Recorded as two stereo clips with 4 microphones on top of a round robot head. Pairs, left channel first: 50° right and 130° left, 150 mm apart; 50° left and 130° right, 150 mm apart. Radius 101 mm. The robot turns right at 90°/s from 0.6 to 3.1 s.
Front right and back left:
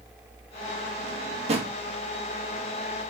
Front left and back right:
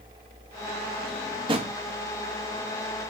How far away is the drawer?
About 1.6 m.